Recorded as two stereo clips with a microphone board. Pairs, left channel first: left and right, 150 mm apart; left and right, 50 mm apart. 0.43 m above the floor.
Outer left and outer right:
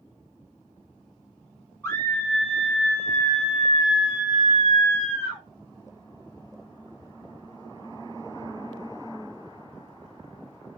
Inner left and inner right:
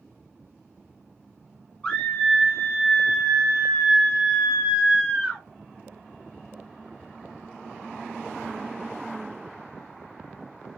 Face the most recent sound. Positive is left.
turn(degrees=-20)  # may be behind; listen again after turning